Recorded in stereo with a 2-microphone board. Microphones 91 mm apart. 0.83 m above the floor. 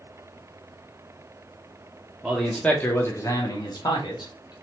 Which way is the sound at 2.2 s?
5° right (ahead or behind).